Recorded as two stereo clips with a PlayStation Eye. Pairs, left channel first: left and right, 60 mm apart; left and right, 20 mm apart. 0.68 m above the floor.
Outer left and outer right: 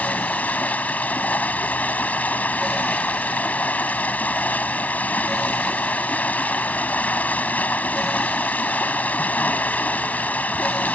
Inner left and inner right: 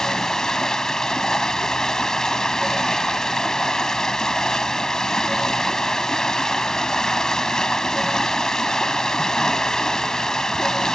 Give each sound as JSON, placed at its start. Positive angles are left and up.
{"t": 0.0, "sound": "running water", "side_deg": 25}